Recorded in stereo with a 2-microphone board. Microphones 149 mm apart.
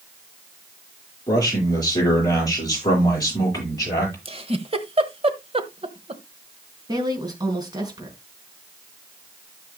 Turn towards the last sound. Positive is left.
turn(degrees=-25)  # may be behind; listen again after turning